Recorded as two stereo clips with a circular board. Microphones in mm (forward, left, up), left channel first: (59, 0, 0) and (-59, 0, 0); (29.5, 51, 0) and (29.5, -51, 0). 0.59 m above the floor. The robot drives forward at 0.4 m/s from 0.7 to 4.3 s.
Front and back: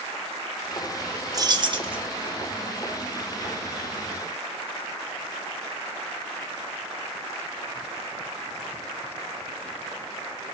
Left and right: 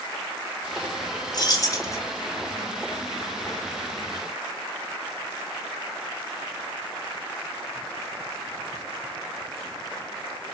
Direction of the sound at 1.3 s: 125° left.